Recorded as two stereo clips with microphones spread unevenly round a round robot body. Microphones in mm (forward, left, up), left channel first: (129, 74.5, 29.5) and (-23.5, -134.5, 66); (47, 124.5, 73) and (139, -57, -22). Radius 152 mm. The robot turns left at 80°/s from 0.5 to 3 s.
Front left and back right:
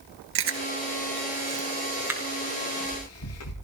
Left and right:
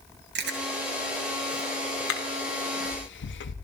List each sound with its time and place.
0.3 s chewing: 85° right, 1.4 m; by 3.5 s 75° left, 1.4 m